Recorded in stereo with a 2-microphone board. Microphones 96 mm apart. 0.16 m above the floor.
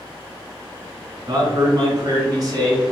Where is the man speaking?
40° right (ahead or behind), 1.4 m.